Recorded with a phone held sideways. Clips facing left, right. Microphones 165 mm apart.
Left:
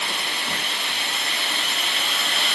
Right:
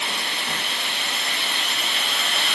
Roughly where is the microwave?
No microwave in this recording.